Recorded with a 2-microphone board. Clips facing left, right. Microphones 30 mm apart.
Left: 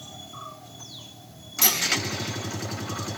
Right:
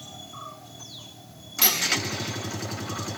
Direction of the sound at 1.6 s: 30° right (ahead or behind).